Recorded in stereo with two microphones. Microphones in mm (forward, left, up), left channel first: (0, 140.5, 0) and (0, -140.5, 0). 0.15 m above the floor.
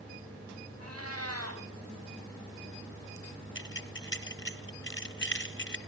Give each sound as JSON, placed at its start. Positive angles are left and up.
{"t": 0.8, "sound": "a cat meowing", "side_deg": -55, "distance_m": 7.0}
{"t": 3.5, "sound": "keys jangling", "side_deg": 40, "distance_m": 1.3}